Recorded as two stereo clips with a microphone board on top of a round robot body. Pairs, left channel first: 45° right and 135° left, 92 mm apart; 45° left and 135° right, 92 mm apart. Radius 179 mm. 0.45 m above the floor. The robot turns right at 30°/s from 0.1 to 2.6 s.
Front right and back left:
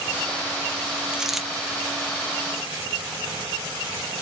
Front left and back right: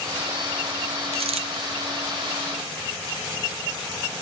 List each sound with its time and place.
1.1 s a dropped coin: 145° right, 1.0 m; by 1.5 s 135° right, 1.0 m